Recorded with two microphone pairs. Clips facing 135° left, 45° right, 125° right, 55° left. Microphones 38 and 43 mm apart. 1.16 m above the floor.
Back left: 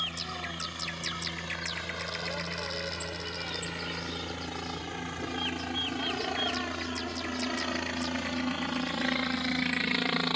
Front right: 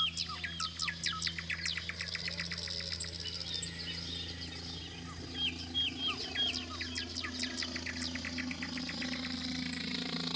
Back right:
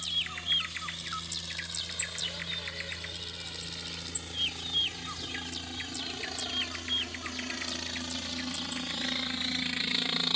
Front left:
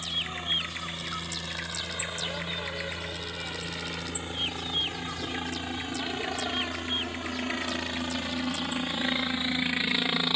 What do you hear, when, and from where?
0.0 s a helicopter: 110° left; by 10.4 s 115° left